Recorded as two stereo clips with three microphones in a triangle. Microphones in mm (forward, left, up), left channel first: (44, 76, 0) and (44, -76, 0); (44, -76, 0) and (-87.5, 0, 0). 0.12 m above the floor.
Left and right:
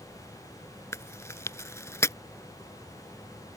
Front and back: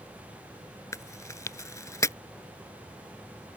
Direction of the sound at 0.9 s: 30° left.